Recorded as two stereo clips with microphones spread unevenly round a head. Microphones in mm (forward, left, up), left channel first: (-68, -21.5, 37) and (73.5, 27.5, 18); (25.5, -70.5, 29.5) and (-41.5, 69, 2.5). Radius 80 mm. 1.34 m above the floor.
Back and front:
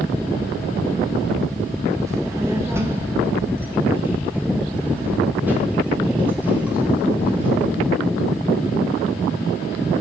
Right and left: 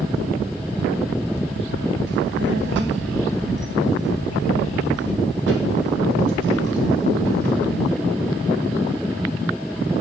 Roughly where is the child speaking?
Left.